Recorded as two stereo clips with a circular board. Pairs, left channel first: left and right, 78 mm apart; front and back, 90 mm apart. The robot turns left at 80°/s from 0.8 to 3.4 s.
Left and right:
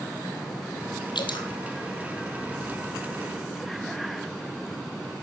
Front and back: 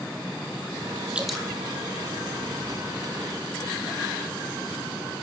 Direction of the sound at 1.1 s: 105° left.